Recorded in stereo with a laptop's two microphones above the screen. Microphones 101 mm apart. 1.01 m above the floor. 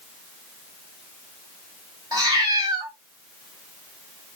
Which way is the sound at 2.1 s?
45° right (ahead or behind).